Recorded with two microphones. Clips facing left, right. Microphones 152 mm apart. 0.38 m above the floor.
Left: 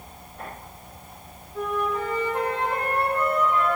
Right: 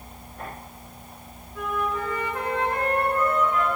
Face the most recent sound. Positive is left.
turn(degrees=35)  # may be behind; listen again after turning